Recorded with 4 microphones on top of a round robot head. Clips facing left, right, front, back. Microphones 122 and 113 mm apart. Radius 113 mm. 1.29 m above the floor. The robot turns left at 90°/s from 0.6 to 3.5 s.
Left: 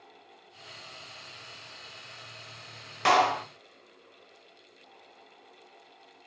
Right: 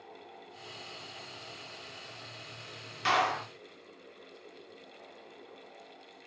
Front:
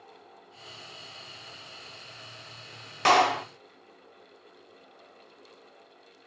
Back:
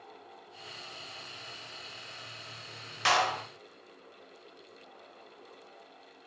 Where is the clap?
40° left, 1.0 m; by 3.5 s straight ahead, 1.0 m.